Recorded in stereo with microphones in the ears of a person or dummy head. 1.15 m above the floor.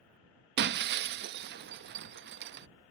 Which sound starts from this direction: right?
Breaking glass, at 0.6 s.